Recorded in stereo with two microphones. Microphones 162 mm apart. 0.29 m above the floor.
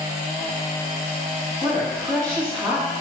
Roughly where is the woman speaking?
Centre.